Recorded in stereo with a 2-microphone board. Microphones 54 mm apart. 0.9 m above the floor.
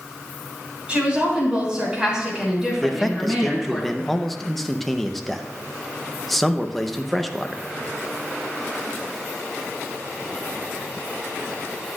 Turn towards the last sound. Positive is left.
turn(degrees=5)  # may be behind; listen again after turning